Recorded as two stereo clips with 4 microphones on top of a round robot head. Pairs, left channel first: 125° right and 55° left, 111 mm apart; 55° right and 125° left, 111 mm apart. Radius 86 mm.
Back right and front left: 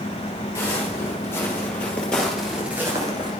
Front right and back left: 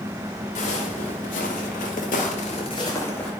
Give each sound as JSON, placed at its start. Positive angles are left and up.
{"t": 0.6, "sound": "footsteps", "azimuth_deg": -60, "distance_m": 2.0}